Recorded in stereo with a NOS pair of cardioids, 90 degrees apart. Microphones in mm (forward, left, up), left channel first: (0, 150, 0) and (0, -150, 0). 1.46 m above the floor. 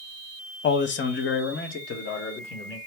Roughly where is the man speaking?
Ahead left.